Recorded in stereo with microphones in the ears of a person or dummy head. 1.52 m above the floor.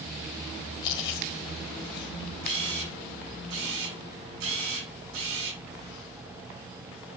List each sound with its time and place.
0.8 s chewing: 25° left (ahead or behind), 1.4 m
2.4 s a camera shutter: 75° right (ahead or behind), 8 m